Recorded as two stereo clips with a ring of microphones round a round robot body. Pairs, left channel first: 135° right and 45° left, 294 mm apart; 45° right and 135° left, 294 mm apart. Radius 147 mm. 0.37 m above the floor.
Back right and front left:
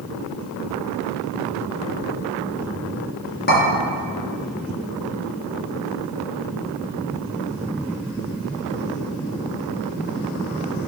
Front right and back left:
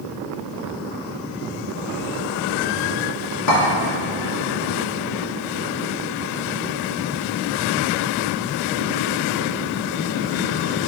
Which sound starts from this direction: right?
A clink, at 3.5 s.